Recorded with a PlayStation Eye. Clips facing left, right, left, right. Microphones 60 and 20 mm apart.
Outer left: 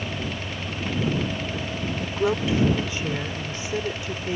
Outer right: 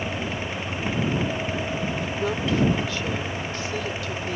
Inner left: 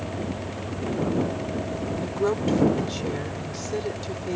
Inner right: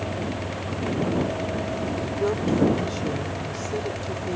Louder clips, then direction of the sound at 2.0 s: Outer left 2 dB, inner left 2 dB; 20° left (ahead or behind).